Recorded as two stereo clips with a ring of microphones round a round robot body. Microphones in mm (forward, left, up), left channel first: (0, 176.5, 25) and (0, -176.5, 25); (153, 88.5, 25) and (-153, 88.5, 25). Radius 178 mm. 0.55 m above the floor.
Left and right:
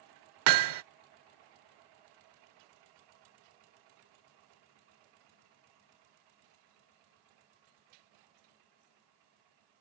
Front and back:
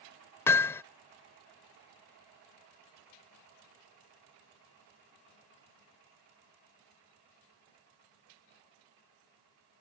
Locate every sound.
0.5 s hammering: 80° right